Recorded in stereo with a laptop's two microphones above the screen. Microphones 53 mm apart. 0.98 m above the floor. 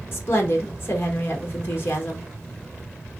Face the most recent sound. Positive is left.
turn(degrees=40)  # may be behind; listen again after turning